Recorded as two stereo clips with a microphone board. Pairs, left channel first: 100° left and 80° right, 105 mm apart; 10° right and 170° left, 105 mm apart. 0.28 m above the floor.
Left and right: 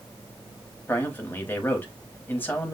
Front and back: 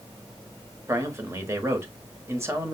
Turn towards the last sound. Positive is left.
turn(degrees=145)